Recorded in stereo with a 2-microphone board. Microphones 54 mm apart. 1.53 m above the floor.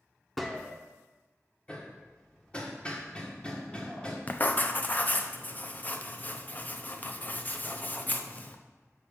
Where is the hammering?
20° left (ahead or behind), 1.2 m.